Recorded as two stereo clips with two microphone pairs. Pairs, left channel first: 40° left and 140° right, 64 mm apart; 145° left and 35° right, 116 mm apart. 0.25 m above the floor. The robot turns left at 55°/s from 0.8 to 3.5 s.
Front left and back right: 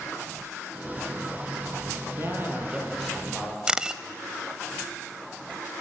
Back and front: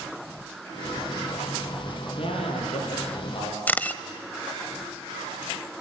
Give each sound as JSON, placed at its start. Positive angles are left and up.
{"t": 2.2, "sound": "a man speaking", "azimuth_deg": 180, "distance_m": 6.5}
{"t": 3.7, "sound": "a camera shutter", "azimuth_deg": 175, "distance_m": 0.7}